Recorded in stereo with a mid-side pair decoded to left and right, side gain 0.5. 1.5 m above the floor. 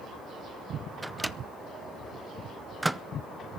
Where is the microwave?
10° right, 0.6 m.